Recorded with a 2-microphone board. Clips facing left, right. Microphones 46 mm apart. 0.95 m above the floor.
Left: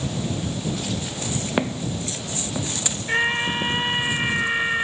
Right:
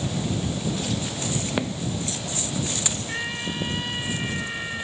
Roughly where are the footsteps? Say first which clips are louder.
Left 3 dB; centre.